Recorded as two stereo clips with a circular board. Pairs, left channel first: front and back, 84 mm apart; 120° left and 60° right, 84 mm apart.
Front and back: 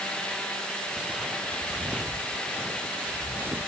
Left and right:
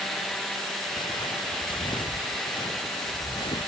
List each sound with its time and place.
0.9 s footsteps: 100° left; by 3.7 s 110° left